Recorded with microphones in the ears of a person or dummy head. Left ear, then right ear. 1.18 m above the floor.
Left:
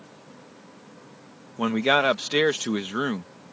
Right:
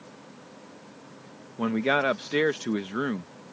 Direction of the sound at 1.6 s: 35° left (ahead or behind).